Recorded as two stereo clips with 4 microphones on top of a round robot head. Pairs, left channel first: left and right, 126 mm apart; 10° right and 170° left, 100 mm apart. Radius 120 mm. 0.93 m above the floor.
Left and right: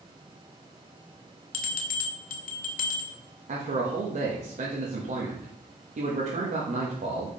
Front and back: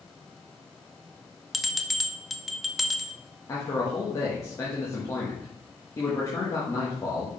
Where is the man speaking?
70° right, 1.5 m.